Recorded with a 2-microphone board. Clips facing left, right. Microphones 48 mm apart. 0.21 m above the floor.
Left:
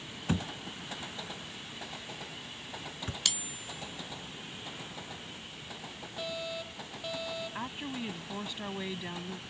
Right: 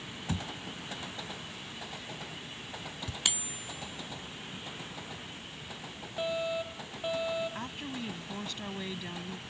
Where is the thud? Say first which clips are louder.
Left 4 dB; 45° left (ahead or behind).